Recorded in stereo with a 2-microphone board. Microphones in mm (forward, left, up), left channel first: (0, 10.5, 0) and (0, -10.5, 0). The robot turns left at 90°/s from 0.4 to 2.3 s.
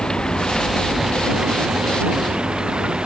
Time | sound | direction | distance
0.0 | running water | 45° left | ?